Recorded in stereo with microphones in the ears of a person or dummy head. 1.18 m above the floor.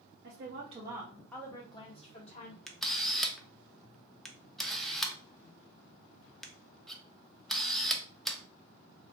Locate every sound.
0.2 s a woman speaking: 50° right (ahead or behind), 0.7 m; by 2.6 s 40° left (ahead or behind), 1.3 m
2.7 s a camera shutter: centre (ahead or behind), 0.6 m